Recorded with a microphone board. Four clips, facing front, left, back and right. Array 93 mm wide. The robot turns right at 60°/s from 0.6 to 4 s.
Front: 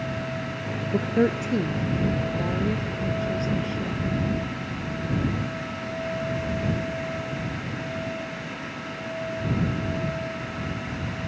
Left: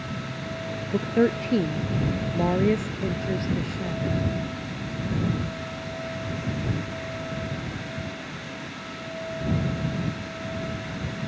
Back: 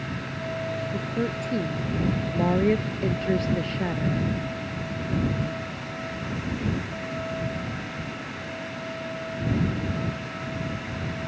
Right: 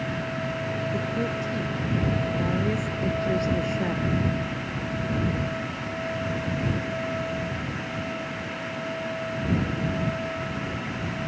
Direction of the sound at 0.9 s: 35° left.